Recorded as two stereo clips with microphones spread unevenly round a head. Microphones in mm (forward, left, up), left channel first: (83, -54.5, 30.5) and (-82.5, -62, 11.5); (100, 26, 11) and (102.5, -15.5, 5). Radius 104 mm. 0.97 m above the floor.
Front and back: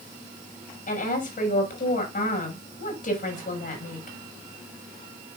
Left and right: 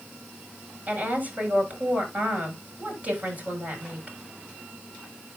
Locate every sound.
0.9 s a woman speaking: 35° right, 5.5 m